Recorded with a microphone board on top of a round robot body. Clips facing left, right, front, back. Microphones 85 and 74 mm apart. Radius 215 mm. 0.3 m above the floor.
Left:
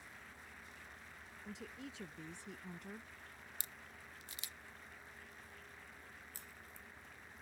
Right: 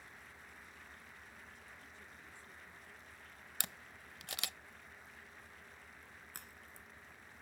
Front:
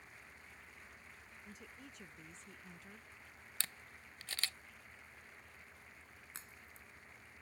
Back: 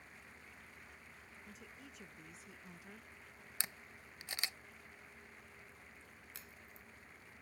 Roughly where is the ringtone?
No ringtone in this recording.